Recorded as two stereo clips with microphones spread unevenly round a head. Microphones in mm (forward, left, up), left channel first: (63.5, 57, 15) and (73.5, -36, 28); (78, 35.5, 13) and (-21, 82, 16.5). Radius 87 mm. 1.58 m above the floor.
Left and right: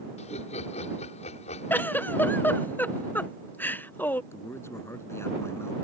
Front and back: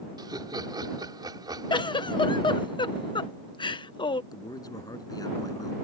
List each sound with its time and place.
0.2 s laughter: 100° left
1.7 s a giggle: 25° left
4.3 s a man speaking: 30° left